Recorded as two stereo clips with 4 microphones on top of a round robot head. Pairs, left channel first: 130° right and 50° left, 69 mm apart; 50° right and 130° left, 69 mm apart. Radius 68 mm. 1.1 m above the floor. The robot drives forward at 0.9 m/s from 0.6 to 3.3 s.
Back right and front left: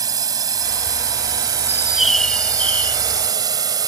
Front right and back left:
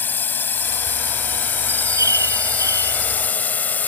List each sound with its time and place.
0.0 s a drone: 15° left
1.7 s a bird: 85° left; by 3.0 s 165° left